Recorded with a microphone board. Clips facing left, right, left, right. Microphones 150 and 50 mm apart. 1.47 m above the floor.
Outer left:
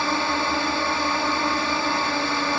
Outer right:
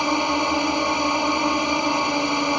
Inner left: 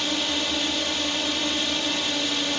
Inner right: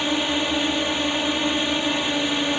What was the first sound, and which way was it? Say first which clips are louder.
A drone: outer right 3 dB, inner right 4 dB; 15° right (ahead or behind).